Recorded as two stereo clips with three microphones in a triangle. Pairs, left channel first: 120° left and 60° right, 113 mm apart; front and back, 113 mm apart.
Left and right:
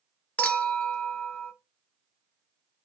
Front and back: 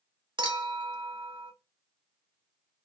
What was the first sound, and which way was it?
A clink, 165° right.